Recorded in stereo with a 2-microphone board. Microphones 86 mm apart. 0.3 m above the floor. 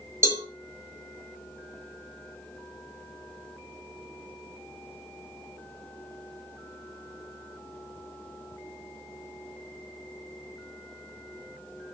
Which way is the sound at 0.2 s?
35° right (ahead or behind).